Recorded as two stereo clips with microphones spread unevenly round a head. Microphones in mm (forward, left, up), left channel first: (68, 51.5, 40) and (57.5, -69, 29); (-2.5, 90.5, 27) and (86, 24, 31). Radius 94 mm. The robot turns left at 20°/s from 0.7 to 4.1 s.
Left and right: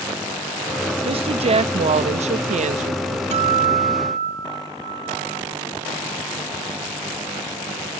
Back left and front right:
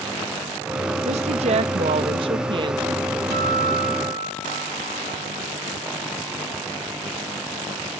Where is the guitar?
75° right, 1.2 m; by 5.4 s 90° right, 1.2 m.